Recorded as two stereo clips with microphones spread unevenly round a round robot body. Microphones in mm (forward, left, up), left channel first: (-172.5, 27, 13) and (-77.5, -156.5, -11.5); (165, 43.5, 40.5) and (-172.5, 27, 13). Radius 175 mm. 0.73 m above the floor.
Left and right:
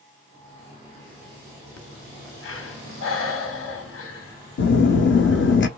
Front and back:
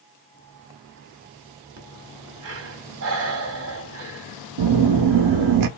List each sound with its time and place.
1.8 s breathing: 130° left, 0.9 m
4.6 s a phone buzzing: 155° left, 0.7 m